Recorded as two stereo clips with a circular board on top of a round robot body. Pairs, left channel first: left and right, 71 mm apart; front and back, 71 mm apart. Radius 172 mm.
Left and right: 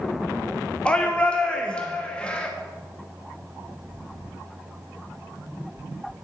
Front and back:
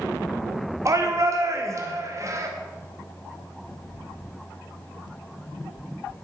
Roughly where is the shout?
Behind.